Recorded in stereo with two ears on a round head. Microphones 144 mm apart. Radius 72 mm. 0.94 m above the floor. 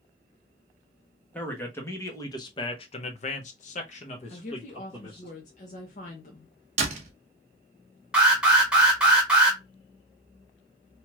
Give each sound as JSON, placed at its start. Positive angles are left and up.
{"t": 1.3, "sound": "a man speaking", "side_deg": 10, "distance_m": 1.1}
{"t": 4.3, "sound": "a woman speaking", "side_deg": 45, "distance_m": 0.7}
{"t": 6.8, "sound": "a door slam", "side_deg": -45, "distance_m": 0.9}
{"t": 8.1, "sound": "an alarm", "side_deg": -5, "distance_m": 1.5}